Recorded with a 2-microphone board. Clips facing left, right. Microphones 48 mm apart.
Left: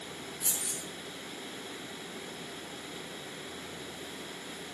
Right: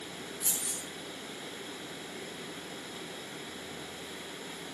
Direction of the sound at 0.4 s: 70° left (ahead or behind).